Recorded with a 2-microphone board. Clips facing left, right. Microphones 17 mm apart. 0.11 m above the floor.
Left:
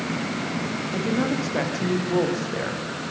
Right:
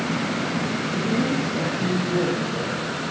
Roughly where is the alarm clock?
I don't hear an alarm clock.